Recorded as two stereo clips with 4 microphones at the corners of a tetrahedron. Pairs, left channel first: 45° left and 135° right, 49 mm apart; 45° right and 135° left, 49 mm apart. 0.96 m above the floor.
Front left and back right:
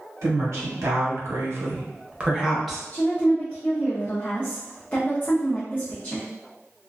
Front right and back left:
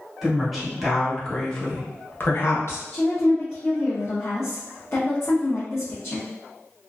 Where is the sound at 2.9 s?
15° right, 0.7 m.